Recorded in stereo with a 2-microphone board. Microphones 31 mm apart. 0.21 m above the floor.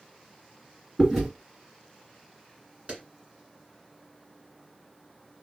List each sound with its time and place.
1.0 s chewing: 5° right (ahead or behind), 1.9 m
2.9 s a clap: 35° right (ahead or behind), 1.9 m